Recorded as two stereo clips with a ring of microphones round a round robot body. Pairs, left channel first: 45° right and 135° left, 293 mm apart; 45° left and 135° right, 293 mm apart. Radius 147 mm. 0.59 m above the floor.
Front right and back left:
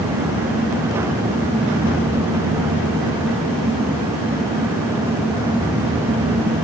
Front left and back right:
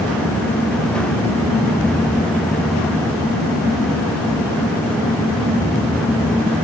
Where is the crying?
I don't hear crying.